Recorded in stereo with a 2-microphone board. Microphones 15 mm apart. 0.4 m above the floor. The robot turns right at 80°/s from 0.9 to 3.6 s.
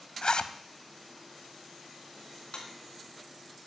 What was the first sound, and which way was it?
A zipper, 65° left (ahead or behind).